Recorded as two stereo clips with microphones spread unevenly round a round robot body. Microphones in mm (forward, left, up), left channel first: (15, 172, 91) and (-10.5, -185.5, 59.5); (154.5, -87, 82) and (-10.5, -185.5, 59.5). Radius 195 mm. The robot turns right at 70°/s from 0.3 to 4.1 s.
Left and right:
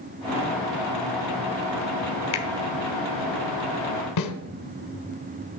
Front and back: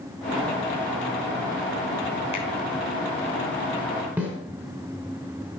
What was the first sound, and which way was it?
A finger snap, 100° left.